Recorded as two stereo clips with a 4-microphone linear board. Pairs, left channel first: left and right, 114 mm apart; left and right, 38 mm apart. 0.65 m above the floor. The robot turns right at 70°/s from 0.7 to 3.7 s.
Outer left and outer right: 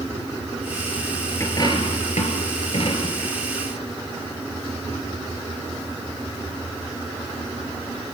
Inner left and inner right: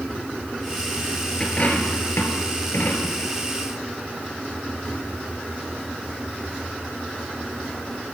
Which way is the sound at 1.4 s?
20° left (ahead or behind).